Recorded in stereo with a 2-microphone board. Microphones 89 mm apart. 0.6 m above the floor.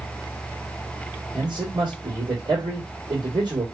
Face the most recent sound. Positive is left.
turn(degrees=-50)  # may be behind; listen again after turning